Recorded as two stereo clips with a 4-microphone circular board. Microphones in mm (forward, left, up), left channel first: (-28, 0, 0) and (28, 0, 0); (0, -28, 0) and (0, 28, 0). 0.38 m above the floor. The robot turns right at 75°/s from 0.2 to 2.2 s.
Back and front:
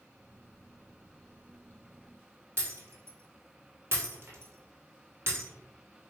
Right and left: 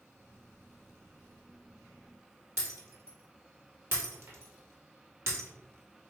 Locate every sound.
2.6 s breaking glass: 45° left, 1.6 m